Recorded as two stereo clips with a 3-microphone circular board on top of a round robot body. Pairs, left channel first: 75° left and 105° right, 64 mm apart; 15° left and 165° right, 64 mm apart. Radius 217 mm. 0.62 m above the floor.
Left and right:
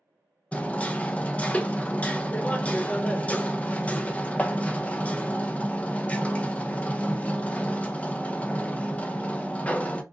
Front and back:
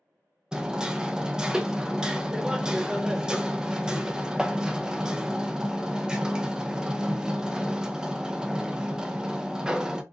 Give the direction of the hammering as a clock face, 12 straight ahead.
8 o'clock.